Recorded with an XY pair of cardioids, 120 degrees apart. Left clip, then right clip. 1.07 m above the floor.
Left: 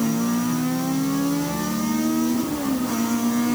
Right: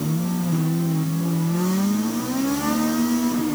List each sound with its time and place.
Only background noise.